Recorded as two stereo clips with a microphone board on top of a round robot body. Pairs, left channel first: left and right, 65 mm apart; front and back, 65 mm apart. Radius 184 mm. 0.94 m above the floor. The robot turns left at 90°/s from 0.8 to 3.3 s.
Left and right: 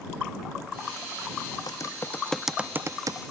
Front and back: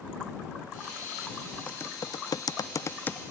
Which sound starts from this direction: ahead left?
Typing on a keyboard, at 1.7 s.